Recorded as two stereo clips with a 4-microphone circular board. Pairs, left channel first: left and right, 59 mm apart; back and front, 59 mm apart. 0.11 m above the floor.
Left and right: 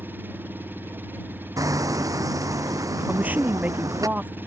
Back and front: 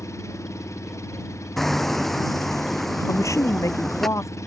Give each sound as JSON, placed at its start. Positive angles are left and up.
{"t": 0.0, "sound": "an engine running", "azimuth_deg": -145}
{"t": 1.6, "sound": "hammering", "azimuth_deg": -95}
{"t": 3.1, "sound": "a man speaking", "azimuth_deg": -150}